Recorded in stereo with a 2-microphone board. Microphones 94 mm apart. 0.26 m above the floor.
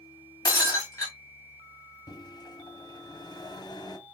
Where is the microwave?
45° left (ahead or behind), 1.3 m.